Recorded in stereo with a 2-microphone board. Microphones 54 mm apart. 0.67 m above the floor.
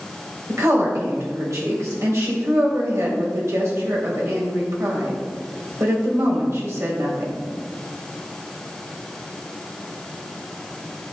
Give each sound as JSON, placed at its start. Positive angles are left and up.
{"t": 0.5, "sound": "a woman speaking", "side_deg": -65, "distance_m": 3.0}